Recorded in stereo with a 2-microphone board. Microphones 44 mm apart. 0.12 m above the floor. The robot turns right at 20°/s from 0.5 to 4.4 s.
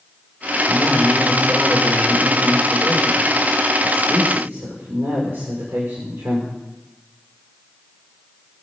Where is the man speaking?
Straight behind, 7 m; by 6.5 s 105° right, 7 m.